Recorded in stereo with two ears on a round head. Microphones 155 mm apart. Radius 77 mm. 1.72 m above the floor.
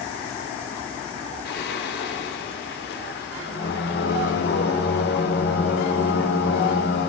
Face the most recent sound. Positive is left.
turn(degrees=70)  # may be behind; listen again after turning